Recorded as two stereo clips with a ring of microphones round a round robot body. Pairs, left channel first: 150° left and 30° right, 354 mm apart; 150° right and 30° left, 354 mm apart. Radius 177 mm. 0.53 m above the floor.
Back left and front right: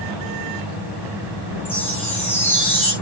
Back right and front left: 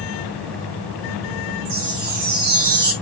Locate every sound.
1.6 s a chime: 65° left, 5.5 m